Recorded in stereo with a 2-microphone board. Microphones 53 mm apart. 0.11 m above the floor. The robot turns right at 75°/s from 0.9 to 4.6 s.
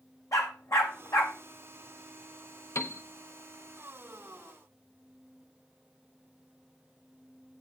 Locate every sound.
0.3 s a dog barking: 85° left, 1.8 m; by 1.4 s 55° left (ahead or behind), 1.8 m
2.8 s a piano: 75° left (ahead or behind), 0.7 m; by 3.0 s 70° left (ahead or behind), 0.7 m